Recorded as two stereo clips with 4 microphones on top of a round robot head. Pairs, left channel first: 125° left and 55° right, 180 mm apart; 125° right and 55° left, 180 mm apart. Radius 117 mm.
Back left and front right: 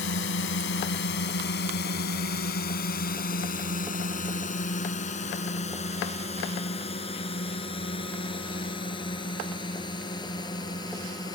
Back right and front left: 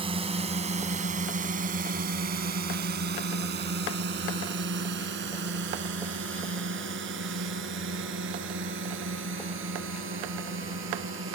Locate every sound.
0.0 s a drone: 115° left; by 11.3 s 55° left